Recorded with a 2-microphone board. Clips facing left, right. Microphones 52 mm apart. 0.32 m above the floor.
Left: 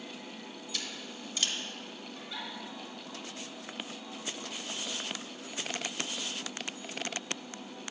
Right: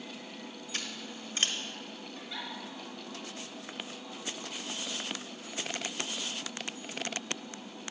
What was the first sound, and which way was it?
Scissors, 40° right (ahead or behind).